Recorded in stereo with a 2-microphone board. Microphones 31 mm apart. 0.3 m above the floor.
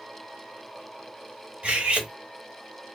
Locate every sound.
1.6 s cutlery clinking: 45° right (ahead or behind), 0.8 m